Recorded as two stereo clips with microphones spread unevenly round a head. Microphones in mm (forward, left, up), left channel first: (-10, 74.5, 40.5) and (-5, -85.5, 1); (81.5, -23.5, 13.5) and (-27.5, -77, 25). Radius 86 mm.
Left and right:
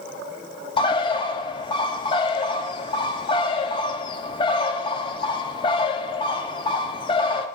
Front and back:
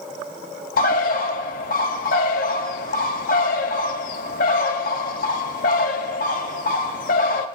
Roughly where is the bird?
Ahead left.